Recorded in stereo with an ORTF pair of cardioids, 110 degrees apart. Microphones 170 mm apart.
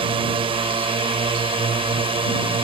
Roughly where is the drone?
Ahead right.